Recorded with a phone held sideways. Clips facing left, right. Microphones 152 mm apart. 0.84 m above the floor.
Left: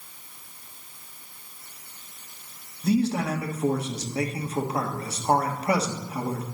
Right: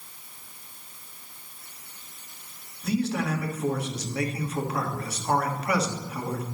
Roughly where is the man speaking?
Left.